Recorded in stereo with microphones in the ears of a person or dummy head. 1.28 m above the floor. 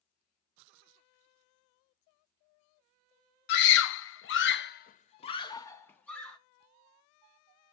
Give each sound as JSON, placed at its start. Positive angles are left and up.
{"t": 3.5, "sound": "a scream", "side_deg": 60, "distance_m": 0.9}